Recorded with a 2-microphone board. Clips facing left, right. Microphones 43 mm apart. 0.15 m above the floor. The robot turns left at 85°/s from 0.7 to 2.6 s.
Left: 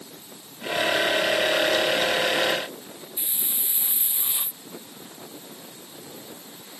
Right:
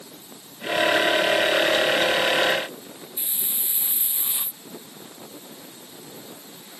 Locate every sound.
3.2 s a hiss: 10° left (ahead or behind)